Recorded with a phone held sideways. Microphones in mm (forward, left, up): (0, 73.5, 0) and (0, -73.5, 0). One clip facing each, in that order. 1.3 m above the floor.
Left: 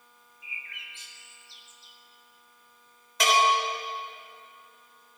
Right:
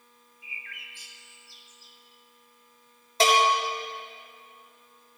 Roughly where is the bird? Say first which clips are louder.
Even; left.